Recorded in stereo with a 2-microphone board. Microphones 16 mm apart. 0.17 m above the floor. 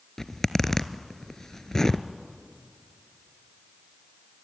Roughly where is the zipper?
Left.